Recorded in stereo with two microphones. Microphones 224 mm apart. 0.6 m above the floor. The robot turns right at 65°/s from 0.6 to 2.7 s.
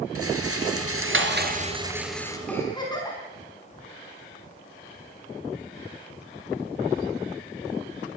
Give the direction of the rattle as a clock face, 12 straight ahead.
3 o'clock.